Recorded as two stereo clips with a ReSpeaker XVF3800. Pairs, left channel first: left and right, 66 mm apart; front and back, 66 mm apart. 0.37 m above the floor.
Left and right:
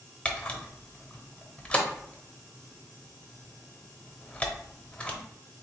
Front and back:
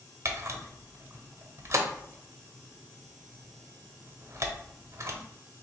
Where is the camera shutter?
155° left, 0.9 m.